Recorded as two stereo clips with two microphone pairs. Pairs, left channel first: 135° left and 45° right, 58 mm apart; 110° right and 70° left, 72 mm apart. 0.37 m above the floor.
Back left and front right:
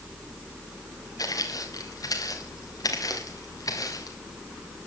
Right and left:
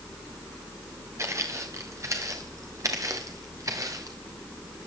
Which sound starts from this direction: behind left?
Footsteps, at 1.2 s.